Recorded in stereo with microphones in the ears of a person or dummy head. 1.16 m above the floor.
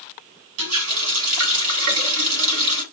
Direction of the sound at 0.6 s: 80° right.